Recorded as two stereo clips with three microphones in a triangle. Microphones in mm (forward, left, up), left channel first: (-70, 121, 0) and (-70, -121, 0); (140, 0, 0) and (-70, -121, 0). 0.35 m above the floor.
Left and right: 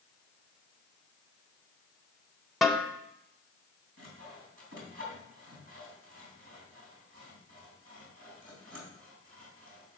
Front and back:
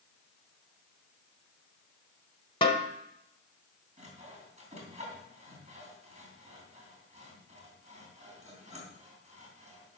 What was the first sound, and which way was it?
A snare drum, straight ahead.